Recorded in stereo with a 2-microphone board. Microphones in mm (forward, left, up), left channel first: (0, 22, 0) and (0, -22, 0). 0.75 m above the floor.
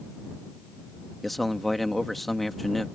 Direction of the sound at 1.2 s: 5° left (ahead or behind).